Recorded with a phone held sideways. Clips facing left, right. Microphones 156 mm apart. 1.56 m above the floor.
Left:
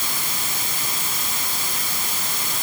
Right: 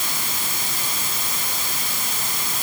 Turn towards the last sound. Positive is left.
No sound to turn to.